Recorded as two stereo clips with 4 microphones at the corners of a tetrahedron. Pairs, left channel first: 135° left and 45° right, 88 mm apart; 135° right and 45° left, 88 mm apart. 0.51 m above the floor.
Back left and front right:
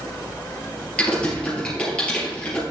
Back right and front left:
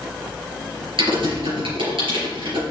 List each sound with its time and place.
1.0 s typing on a keyboard: 60° left, 4.5 m